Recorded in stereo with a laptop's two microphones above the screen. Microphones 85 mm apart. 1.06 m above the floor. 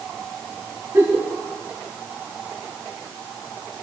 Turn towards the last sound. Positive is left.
turn(degrees=-40)  # may be behind; listen again after turning